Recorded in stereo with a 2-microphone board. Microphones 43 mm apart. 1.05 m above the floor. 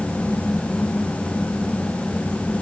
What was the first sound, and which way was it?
Only background noise.